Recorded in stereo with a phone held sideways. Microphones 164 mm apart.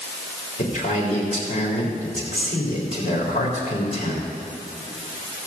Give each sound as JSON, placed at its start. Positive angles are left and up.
{"t": 0.6, "sound": "a man speaking", "side_deg": 50, "distance_m": 3.5}